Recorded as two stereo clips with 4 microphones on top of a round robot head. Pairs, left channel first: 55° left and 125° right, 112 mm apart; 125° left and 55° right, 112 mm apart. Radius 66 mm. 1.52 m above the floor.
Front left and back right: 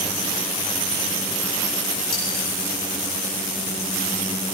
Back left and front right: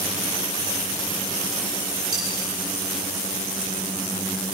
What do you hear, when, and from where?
2.1 s cutlery clinking: 30° left, 9.5 m